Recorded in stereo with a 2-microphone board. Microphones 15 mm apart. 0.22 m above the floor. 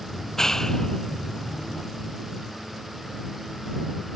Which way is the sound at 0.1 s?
35° left (ahead or behind).